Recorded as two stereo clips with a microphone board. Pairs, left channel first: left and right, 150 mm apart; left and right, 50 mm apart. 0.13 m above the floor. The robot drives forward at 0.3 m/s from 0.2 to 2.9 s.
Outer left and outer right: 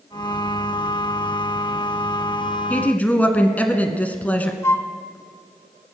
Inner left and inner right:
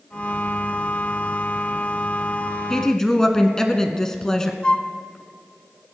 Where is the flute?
20° left (ahead or behind), 0.6 m.